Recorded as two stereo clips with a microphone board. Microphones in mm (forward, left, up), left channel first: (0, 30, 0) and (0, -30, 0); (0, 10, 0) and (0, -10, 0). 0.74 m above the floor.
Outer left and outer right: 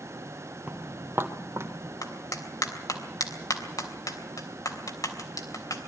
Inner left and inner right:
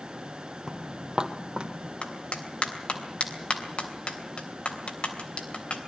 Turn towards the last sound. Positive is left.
turn(degrees=80)